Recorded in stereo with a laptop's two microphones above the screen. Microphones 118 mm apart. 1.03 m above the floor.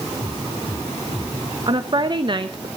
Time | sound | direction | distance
1.7 | a woman speaking | 40° right (ahead or behind) | 0.8 m